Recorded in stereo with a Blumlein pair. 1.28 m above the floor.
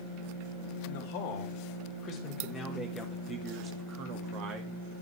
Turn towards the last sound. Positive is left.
turn(degrees=-40)